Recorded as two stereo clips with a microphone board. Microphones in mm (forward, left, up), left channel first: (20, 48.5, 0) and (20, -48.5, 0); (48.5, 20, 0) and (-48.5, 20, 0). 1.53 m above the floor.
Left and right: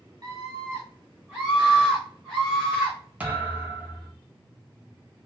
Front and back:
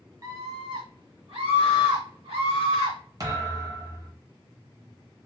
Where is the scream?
135° right, 1.0 m; by 3.0 s 175° left, 2.0 m.